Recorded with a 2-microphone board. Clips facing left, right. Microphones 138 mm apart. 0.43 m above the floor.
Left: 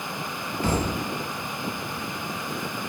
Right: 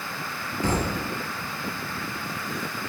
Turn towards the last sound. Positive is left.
turn(degrees=-15)  # may be behind; listen again after turning